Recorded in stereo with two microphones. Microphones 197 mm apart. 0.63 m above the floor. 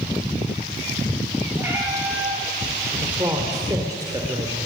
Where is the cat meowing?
10° right (ahead or behind), 3.5 m.